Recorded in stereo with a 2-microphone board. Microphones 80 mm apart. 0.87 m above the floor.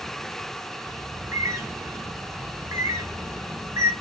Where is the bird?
40° right (ahead or behind), 1.0 m.